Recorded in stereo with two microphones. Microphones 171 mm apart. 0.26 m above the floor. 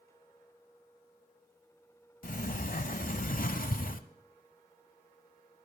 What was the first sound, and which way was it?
A sliding door, 55° left (ahead or behind).